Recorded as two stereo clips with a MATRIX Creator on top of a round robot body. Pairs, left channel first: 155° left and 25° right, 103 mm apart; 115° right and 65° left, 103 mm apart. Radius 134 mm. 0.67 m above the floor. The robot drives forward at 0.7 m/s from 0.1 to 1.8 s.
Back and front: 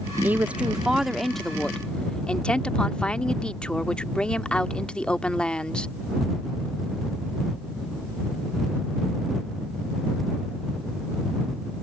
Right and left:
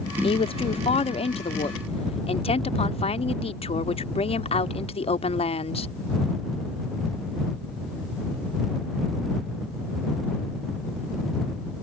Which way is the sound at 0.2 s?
95° right.